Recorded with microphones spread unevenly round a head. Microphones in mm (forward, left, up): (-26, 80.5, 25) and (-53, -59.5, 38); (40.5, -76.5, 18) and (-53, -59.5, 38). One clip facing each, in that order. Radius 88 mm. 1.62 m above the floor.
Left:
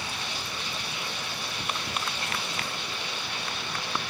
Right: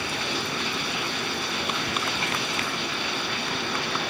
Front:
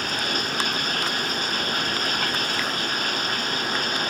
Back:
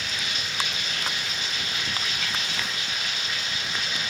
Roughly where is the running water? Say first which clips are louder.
Right 7 dB, front 6 dB; ahead right.